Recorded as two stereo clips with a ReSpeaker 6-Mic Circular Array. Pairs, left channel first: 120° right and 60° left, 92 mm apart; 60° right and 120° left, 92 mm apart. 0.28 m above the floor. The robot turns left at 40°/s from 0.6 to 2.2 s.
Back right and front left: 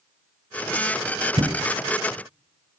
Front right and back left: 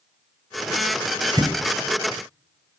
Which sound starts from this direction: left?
A thud, at 1.4 s.